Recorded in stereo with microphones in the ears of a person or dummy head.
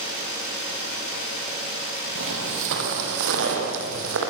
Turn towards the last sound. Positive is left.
turn(degrees=-70)  # may be behind; listen again after turning